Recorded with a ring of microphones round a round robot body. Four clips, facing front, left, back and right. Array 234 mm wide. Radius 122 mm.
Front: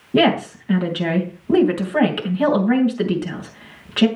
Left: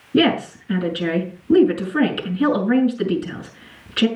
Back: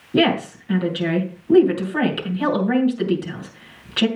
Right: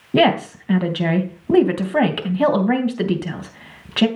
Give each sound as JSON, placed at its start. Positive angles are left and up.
{"t": 0.1, "sound": "a woman speaking", "azimuth_deg": -70, "distance_m": 3.0}